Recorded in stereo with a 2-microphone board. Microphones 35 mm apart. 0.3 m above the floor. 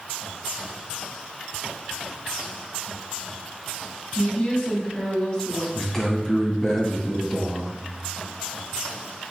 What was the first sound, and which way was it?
A woman speaking, 20° left (ahead or behind).